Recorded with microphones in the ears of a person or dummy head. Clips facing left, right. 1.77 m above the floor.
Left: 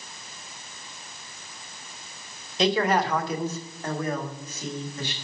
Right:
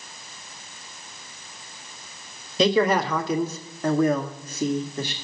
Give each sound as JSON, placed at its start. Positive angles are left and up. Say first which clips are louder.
{"t": 2.6, "sound": "a man speaking", "louder": "right 3 dB", "side_deg": -75, "distance_m": 1.1}